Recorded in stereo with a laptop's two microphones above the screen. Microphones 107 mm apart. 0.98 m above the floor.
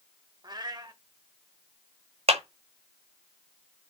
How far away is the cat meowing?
About 1.4 m.